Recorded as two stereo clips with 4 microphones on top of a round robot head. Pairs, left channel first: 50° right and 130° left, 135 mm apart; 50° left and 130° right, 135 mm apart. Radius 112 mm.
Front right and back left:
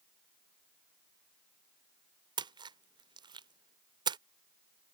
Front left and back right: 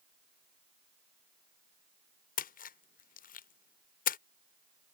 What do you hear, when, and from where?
2.4 s a splash: 70° left